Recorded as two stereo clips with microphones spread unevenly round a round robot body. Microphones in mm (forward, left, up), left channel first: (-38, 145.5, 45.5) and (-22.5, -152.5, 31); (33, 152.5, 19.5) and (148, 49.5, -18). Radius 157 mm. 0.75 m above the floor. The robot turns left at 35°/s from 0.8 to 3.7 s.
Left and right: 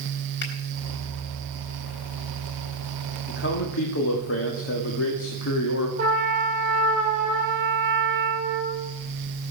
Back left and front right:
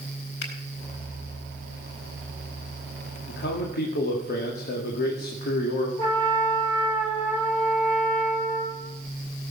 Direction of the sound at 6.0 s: 155° right.